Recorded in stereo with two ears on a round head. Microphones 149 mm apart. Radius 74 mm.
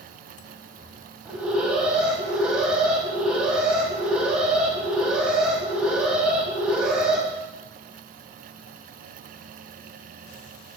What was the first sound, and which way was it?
An alarm, 5° right (ahead or behind).